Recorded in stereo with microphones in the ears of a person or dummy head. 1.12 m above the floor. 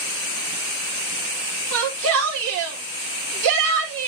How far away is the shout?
About 4 m.